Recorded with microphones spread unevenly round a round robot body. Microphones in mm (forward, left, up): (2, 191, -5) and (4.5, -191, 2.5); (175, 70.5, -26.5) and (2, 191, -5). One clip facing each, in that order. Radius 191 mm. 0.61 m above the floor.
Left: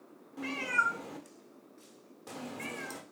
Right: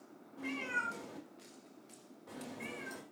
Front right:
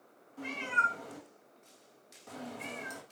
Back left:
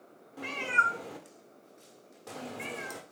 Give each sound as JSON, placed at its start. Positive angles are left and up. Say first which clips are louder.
{"t": 0.4, "sound": "a cat meowing", "louder": "left 3 dB, back left 2 dB", "azimuth_deg": 120, "distance_m": 1.0}